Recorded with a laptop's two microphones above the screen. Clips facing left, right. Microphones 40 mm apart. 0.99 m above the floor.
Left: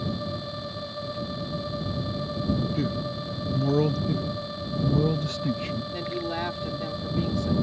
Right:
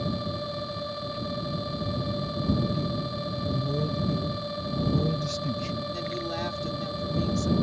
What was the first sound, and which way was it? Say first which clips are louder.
A man speaking: left 1 dB; 70° left (ahead or behind).